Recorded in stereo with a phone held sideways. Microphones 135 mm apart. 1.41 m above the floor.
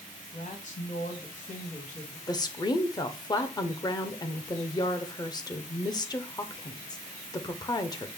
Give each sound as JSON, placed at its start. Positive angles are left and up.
{"t": 0.3, "sound": "a woman speaking", "side_deg": 70, "distance_m": 1.4}
{"t": 2.3, "sound": "a woman speaking", "side_deg": 30, "distance_m": 0.7}